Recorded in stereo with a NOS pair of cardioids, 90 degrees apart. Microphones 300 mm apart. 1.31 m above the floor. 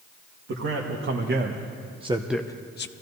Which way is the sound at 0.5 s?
50° right.